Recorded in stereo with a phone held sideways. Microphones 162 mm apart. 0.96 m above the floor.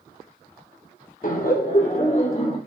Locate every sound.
1.2 s laughter: 55° left (ahead or behind), 0.9 m; by 2.6 s 35° left (ahead or behind), 1.7 m